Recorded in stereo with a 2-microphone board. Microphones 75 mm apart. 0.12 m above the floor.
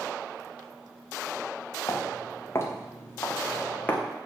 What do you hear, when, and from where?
1.9 s footsteps: 45° left (ahead or behind), 3 m; by 4.1 s 20° left (ahead or behind), 3 m